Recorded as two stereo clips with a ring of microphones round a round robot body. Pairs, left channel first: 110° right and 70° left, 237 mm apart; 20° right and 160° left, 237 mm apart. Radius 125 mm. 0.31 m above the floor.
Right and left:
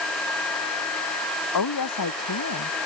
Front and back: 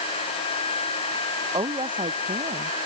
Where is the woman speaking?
130° right; by 2.8 s 135° right.